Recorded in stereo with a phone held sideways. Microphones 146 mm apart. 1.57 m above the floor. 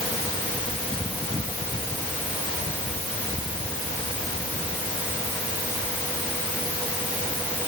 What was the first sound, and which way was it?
Only background noise.